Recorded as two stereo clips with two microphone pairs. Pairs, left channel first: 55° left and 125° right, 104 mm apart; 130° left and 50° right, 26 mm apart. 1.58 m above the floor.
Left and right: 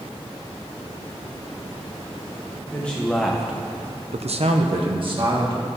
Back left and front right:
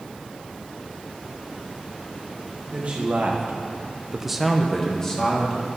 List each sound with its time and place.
2.7 s a man speaking: 20° right, 1.5 m; by 5.7 s 165° right, 2 m